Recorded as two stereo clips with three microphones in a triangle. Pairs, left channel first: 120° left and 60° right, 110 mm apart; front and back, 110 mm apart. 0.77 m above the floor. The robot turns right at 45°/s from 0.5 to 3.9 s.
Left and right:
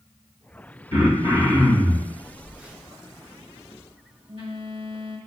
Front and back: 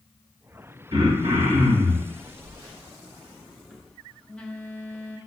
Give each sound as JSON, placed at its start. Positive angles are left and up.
{"t": 0.9, "sound": "throat clearing", "azimuth_deg": 140, "distance_m": 2.5}
{"t": 2.2, "sound": "a phone buzzing", "azimuth_deg": -155, "distance_m": 1.2}